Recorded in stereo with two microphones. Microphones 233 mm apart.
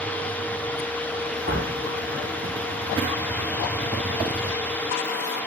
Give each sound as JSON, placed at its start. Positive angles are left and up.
{"t": 1.5, "sound": "a door slam", "side_deg": -50, "distance_m": 9.0}